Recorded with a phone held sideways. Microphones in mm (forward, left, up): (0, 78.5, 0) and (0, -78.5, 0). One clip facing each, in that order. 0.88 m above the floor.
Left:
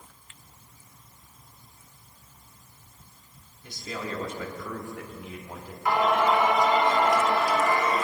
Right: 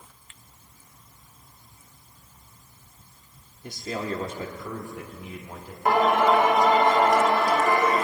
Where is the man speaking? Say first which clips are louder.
Right 4 dB; 50° right (ahead or behind), 1.3 m; by 5.8 s 15° left (ahead or behind), 2.5 m.